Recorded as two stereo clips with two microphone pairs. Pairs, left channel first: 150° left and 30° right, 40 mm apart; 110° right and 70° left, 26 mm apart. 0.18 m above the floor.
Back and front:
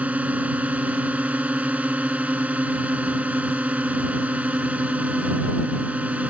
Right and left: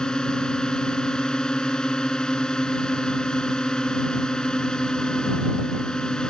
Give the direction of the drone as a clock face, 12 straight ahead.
2 o'clock.